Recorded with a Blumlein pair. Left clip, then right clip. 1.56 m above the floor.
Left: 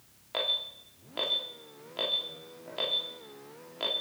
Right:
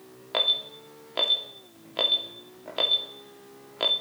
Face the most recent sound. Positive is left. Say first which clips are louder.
# right 6 dB
turn(degrees=-70)